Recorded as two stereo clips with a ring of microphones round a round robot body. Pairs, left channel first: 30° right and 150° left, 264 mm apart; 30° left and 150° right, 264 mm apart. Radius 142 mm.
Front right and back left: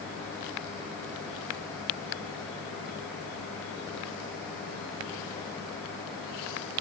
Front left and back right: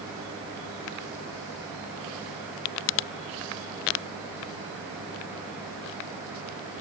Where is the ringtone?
I don't hear a ringtone.